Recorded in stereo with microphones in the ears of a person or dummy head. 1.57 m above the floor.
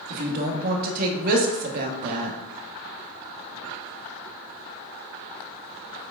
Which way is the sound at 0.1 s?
50° right (ahead or behind).